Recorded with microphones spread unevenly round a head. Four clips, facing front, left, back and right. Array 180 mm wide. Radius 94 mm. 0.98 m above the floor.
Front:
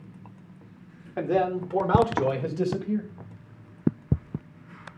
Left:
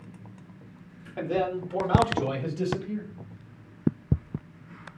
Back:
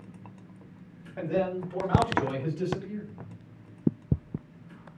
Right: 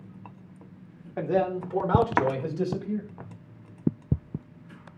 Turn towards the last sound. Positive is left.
turn(degrees=-15)